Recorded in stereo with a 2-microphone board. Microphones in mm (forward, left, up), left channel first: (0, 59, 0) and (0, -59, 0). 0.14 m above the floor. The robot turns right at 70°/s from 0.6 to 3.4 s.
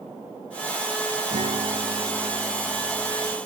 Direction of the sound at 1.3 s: 70° right.